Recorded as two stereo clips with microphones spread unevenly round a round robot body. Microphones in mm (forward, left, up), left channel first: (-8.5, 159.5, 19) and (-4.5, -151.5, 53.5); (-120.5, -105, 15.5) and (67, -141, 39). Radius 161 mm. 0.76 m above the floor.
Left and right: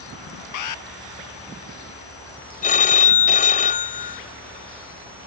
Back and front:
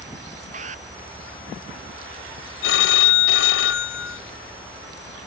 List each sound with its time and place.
0.5 s an alarm: 60° left
2.6 s a phone ringing: 155° left